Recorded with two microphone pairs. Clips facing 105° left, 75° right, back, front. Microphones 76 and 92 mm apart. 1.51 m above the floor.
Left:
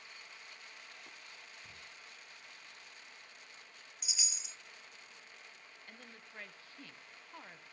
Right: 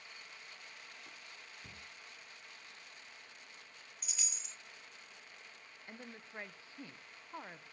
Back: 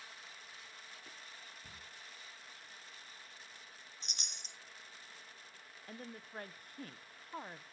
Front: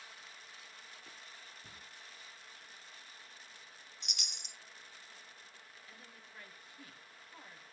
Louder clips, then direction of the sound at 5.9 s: Right 5 dB, back 12 dB; 140° right.